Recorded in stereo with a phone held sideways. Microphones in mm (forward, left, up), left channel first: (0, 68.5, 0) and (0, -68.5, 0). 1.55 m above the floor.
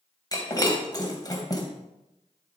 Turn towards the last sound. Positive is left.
turn(degrees=30)  # may be behind; listen again after turning